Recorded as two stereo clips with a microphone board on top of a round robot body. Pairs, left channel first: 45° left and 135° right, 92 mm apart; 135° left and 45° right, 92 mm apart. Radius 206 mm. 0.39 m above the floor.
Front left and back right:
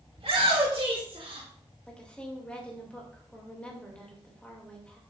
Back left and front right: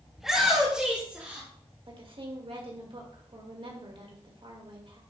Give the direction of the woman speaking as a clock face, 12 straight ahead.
1 o'clock.